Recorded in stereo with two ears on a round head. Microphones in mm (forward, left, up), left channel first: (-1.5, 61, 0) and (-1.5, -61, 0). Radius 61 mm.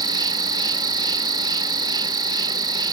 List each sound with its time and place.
0.0 s an insect: 30° right (ahead or behind)